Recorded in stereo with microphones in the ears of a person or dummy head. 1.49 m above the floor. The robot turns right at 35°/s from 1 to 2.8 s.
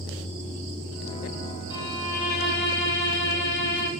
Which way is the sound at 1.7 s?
30° left.